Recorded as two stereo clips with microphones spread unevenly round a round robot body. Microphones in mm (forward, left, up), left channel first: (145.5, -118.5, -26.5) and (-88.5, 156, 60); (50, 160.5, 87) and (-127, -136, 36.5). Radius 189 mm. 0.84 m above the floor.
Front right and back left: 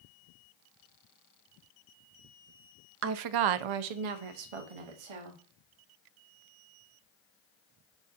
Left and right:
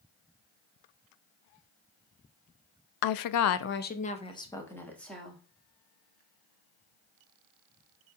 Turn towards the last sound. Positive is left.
turn(degrees=150)